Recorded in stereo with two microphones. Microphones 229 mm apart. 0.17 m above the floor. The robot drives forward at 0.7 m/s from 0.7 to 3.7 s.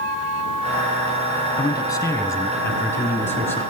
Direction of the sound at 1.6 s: 15° left (ahead or behind).